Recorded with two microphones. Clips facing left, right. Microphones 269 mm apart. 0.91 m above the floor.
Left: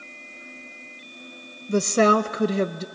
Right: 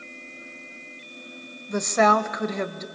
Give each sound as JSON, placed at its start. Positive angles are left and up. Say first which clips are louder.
{"t": 1.7, "sound": "a woman speaking", "louder": "left 3 dB", "side_deg": 35, "distance_m": 0.5}